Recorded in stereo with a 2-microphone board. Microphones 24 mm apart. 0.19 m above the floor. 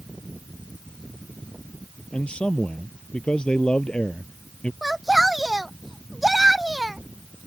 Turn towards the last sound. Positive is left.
turn(degrees=-10)  # may be behind; listen again after turning